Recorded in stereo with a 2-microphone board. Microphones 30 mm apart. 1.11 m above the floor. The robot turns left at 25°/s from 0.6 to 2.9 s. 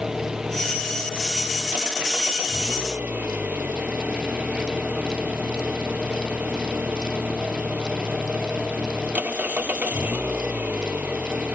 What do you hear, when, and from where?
0.0 s an engine running: 20° right; by 11.5 s 75° right